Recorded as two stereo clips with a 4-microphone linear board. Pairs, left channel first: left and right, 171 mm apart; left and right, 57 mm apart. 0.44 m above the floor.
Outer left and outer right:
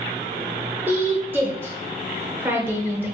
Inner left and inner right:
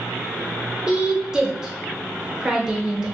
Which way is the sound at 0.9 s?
10° right (ahead or behind).